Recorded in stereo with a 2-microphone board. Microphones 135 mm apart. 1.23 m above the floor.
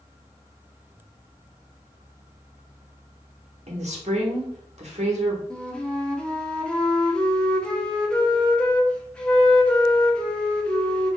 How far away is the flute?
About 0.5 m.